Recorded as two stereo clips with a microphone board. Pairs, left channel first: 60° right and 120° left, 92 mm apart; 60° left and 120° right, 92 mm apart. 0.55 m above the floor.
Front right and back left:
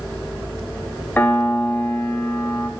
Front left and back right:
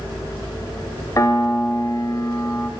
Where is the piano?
10° left, 0.6 m.